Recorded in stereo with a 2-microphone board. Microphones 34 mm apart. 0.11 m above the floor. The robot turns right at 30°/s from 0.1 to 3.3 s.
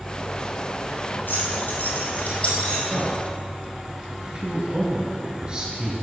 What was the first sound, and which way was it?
Keys jangling, 65° left (ahead or behind).